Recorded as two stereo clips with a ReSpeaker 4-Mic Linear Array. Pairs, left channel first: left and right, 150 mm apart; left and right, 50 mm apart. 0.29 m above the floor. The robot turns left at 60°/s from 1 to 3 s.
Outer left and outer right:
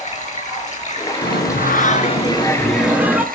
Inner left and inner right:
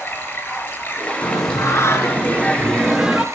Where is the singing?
95° left, 1.6 m; by 3.2 s 10° right, 1.6 m.